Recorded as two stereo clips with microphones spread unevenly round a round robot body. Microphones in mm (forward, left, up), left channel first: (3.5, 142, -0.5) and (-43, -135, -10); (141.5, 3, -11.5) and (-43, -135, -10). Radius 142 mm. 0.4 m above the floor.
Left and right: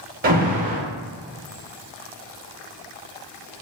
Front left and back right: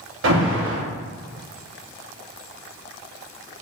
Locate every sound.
0.2 s an alarm: 150° right, 0.6 m